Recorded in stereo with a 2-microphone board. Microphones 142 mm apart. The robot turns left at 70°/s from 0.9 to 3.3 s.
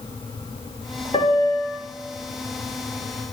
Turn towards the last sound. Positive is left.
turn(degrees=-110)